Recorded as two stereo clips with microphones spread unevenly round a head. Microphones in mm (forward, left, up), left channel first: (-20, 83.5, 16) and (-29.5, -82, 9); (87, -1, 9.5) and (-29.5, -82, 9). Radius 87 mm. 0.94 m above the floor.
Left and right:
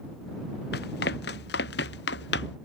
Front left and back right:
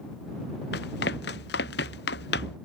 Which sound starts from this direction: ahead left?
Running footsteps, at 0.7 s.